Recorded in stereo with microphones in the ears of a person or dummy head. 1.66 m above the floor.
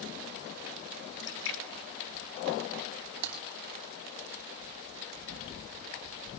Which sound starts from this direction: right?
Typing on a keyboard, at 3.2 s.